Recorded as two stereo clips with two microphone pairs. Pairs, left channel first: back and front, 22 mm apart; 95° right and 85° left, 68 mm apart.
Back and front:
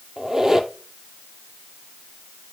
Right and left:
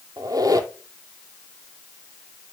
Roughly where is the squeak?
Ahead left.